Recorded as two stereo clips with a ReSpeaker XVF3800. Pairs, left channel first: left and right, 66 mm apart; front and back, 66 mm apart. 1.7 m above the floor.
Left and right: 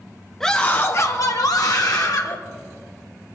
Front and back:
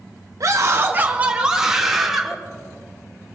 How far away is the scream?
About 0.8 m.